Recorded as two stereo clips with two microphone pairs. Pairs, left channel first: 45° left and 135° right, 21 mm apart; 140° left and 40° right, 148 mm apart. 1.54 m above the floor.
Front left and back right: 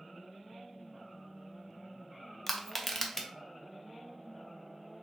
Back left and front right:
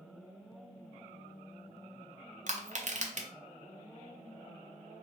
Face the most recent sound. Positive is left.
turn(degrees=-25)